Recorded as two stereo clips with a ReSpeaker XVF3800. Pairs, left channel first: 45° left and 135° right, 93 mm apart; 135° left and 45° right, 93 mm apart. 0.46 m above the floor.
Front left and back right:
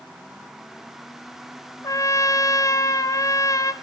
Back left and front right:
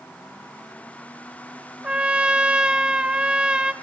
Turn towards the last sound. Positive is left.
turn(degrees=30)